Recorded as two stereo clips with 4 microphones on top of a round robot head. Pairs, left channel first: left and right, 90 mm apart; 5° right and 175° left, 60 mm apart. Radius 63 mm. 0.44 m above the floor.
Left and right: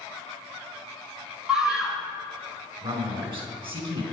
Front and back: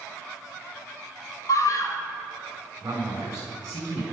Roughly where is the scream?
Ahead.